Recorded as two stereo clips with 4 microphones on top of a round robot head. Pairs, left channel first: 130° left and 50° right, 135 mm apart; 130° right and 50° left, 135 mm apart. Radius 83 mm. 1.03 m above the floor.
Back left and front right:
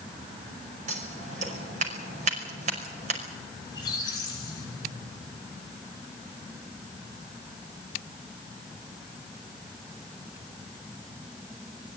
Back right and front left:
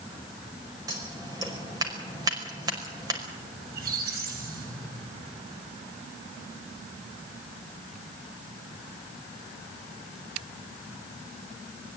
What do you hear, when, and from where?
0.9 s scissors: 10° right, 5.5 m
3.6 s a squeak: 65° left, 5.5 m